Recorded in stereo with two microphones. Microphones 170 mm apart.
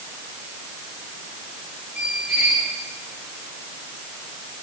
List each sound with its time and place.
1.9 s a squeak: 10° right (ahead or behind), 5.5 m